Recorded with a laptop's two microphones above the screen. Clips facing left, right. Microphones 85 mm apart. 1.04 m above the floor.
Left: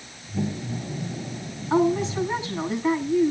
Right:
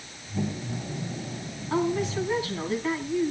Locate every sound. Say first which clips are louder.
1.7 s a woman speaking: left 5 dB; 20° left (ahead or behind), 8 m